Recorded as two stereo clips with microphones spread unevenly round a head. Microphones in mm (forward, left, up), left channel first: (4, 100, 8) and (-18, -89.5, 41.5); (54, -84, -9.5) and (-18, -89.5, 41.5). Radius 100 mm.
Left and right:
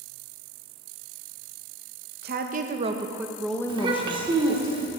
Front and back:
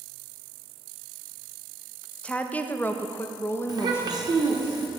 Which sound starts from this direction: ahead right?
A woman speaking, at 2.2 s.